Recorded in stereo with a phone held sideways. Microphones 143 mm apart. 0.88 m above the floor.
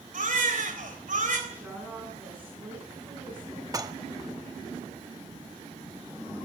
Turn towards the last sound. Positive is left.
turn(degrees=-25)  # may be behind; listen again after turning